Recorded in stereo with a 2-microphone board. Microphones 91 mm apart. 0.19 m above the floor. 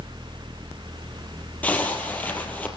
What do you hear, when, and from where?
1.6 s a zipper: 15° left (ahead or behind), 3 m